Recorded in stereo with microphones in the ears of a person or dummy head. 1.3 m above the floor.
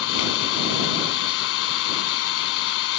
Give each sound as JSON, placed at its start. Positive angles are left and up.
{"t": 0.0, "sound": "an engine running", "side_deg": 80}